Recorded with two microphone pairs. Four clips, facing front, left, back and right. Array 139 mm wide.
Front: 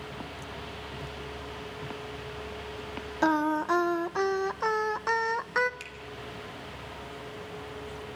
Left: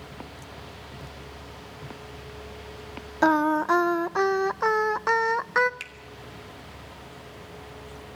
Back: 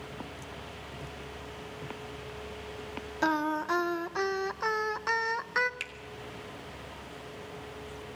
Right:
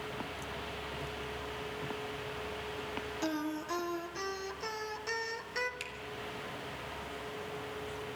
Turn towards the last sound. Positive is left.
turn(degrees=165)